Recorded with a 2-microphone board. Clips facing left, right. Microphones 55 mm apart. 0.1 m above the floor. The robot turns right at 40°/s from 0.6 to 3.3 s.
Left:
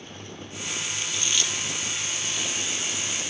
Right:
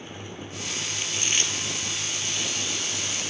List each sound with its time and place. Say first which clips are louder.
1.0 s chewing: right 1 dB; 25° right (ahead or behind), 2 m; by 3.3 s 50° right (ahead or behind), 2 m